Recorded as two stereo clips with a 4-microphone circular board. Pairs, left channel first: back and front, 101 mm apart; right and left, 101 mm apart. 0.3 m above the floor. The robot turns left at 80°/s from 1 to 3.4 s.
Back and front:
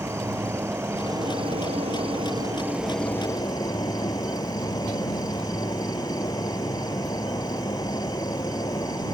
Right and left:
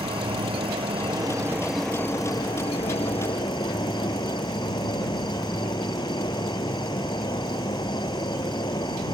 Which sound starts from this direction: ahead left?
An insect, at 0.0 s.